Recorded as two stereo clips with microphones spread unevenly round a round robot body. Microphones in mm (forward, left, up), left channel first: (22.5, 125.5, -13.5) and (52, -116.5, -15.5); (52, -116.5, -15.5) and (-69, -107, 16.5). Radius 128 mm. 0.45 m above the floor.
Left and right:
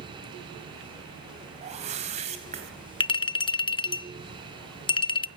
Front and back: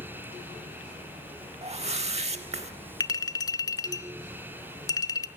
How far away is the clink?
About 0.6 m.